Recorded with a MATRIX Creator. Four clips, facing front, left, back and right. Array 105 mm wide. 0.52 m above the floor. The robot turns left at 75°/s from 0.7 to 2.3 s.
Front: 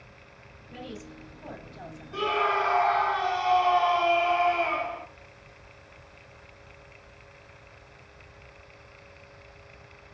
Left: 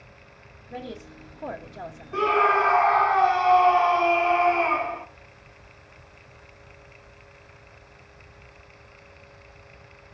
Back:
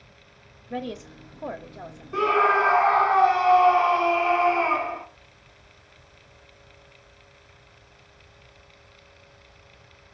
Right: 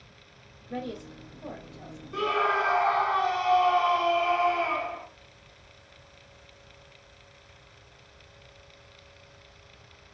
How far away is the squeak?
No squeak in this recording.